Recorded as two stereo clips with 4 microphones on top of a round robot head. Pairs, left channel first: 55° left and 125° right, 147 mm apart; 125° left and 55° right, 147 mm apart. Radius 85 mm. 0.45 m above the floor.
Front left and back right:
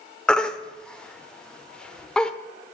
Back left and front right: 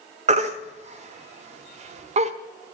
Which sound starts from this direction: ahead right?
A baby crying, at 0.3 s.